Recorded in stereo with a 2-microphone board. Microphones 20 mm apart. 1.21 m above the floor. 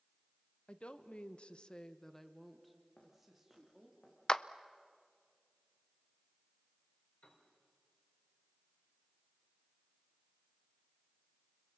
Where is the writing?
I don't hear writing.